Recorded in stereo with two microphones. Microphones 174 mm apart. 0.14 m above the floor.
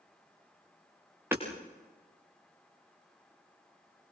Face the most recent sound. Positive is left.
turn(degrees=-15)  # may be behind; listen again after turning